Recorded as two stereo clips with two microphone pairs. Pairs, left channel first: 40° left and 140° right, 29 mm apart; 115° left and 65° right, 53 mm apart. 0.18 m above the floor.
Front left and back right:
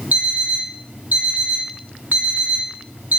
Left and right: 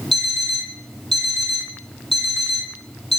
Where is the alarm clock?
160° right, 3 m.